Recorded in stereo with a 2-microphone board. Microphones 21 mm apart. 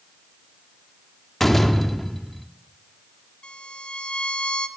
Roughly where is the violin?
Left.